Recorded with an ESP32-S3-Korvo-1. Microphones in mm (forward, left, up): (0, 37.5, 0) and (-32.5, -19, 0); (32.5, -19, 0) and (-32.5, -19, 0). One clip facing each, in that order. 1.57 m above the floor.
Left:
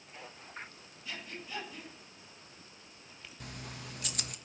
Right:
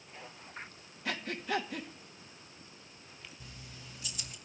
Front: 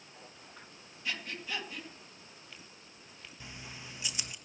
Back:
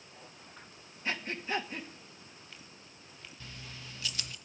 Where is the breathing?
125° right, 2.5 m.